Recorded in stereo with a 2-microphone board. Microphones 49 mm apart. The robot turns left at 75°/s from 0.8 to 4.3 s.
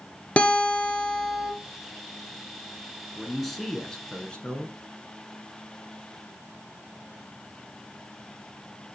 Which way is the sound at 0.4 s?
35° left.